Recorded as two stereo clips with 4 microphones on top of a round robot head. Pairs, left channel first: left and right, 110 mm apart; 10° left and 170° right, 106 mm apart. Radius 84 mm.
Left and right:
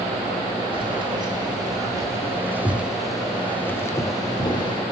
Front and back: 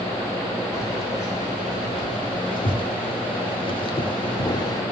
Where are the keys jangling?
50° right, 1.7 m; by 4.8 s 55° left, 1.2 m.